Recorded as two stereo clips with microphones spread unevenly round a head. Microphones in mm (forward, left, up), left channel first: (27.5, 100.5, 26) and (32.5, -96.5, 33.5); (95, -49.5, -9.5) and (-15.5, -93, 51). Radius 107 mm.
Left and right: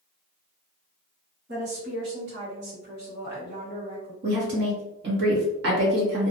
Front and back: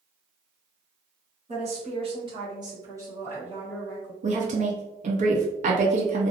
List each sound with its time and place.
1.5 s a woman speaking: 140° right, 1.4 m; by 4.1 s 75° right, 1.7 m
4.2 s a woman speaking: 120° right, 0.8 m